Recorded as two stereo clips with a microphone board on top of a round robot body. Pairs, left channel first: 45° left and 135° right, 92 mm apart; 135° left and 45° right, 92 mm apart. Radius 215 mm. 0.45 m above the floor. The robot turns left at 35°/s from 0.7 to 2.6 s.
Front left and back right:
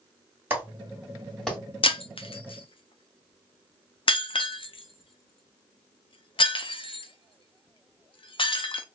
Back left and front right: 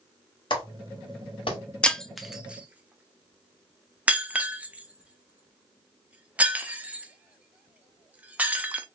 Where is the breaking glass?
55° left, 0.7 m; by 8.9 s 30° left, 0.7 m.